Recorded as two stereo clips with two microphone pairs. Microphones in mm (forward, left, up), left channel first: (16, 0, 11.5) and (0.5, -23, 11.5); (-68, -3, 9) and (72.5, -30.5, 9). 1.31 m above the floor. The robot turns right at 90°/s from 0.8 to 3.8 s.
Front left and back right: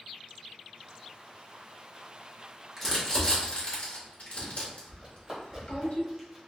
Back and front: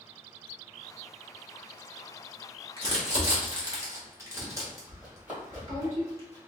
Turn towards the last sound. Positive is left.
turn(degrees=-45)